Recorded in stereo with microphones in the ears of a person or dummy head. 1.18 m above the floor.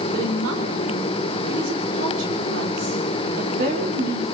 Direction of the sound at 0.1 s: 85° right.